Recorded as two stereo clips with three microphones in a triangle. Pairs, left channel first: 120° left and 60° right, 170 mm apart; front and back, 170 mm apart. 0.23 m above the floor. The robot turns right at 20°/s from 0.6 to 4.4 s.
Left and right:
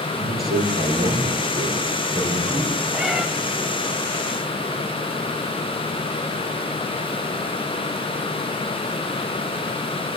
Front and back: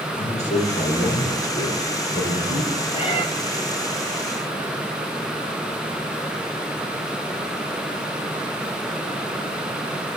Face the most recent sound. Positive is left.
turn(degrees=50)